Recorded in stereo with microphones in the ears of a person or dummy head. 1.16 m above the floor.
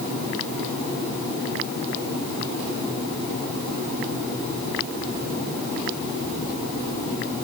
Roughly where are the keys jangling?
I don't hear keys jangling.